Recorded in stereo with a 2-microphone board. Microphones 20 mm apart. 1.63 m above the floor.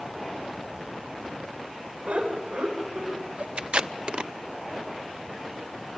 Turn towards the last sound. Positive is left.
turn(degrees=-55)  # may be behind; listen again after turning